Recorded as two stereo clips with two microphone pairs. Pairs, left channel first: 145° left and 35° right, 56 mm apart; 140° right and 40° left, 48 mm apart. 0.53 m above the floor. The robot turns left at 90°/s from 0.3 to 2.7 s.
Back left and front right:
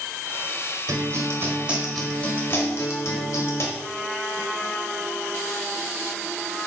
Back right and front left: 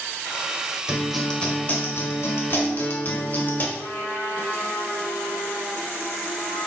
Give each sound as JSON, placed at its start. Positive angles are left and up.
{"t": 0.9, "sound": "a guitar", "azimuth_deg": -25, "distance_m": 1.5}
{"t": 3.8, "sound": "a trumpet", "azimuth_deg": -150, "distance_m": 1.9}